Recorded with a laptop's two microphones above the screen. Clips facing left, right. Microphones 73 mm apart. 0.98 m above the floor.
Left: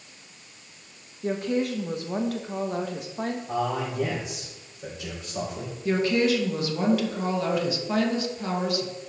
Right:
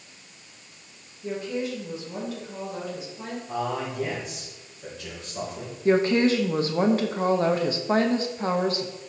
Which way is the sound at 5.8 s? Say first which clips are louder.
Right 3 dB; 35° right (ahead or behind).